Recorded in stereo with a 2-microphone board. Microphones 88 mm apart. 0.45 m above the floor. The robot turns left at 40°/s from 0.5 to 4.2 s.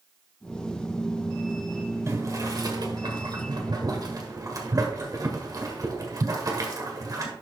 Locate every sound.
2.1 s boiling: 35° right (ahead or behind), 1.8 m; by 7.3 s 40° right (ahead or behind), 1.8 m